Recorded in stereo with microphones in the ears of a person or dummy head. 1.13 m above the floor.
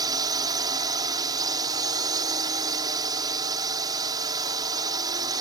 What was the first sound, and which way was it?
A drone, 25° right (ahead or behind).